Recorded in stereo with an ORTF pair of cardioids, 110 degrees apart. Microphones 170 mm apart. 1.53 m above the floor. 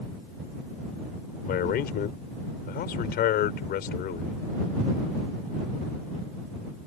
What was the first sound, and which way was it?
A man speaking, 65° left.